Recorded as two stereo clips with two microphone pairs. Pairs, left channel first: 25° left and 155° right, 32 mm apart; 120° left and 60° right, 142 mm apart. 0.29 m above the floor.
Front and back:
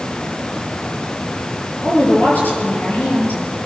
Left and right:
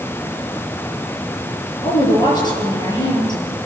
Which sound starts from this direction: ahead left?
A woman speaking, at 1.8 s.